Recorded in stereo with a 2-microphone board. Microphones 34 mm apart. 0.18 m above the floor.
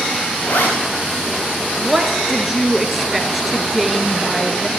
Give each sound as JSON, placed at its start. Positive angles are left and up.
{"t": 0.4, "sound": "a zipper", "side_deg": 65, "distance_m": 7.0}
{"t": 1.8, "sound": "a woman speaking", "side_deg": -5, "distance_m": 2.5}